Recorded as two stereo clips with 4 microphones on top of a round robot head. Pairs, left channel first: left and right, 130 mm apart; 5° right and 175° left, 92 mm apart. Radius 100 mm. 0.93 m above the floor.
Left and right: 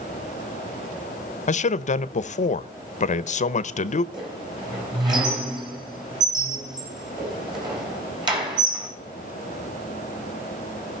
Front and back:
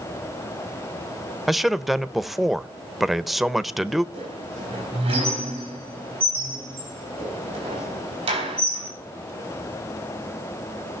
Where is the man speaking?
85° left, 0.7 m.